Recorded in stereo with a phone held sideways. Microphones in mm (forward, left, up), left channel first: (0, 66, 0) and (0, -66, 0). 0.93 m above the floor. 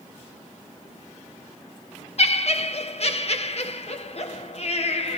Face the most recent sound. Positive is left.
turn(degrees=50)  # may be behind; listen again after turning